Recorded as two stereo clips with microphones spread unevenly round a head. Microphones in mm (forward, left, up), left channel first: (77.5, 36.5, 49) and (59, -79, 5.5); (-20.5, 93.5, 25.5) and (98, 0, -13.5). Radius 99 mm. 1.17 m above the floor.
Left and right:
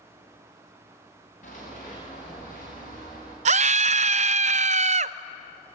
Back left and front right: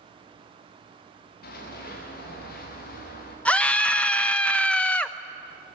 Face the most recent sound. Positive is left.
turn(degrees=-135)